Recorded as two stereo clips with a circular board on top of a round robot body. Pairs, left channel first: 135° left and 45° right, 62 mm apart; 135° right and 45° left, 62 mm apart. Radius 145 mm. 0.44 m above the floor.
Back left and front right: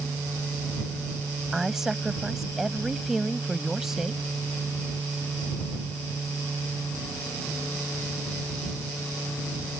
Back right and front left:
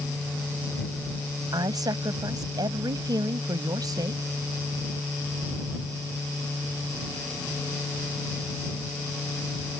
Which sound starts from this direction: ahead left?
A woman speaking, at 1.5 s.